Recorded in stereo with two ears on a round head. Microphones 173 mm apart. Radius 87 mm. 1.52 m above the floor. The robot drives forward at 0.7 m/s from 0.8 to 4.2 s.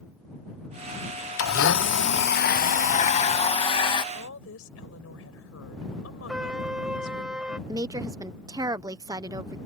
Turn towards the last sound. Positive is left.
turn(degrees=-20)  # may be behind; listen again after turning